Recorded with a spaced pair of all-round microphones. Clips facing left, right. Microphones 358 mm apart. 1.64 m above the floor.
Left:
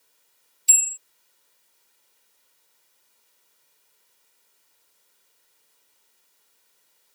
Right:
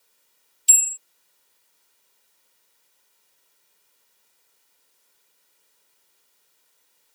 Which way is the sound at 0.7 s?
45° right (ahead or behind).